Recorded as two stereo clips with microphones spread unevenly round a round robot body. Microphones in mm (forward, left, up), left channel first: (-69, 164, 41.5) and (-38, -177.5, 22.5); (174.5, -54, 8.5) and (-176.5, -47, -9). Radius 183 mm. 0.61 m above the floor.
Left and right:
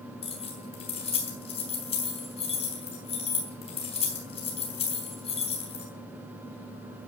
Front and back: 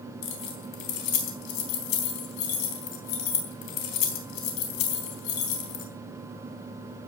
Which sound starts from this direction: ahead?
Keys jangling, at 0.2 s.